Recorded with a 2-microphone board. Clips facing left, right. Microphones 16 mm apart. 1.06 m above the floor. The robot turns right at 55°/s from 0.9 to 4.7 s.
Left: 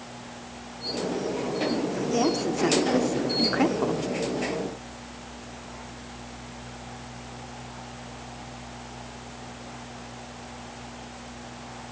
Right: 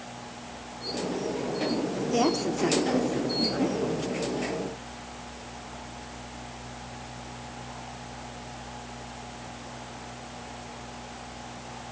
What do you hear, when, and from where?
2.1 s a woman speaking: 15° right (ahead or behind), 3 m; by 4.0 s 80° left, 3 m